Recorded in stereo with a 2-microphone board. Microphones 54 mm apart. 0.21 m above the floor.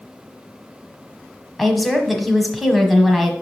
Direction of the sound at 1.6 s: Centre (ahead or behind).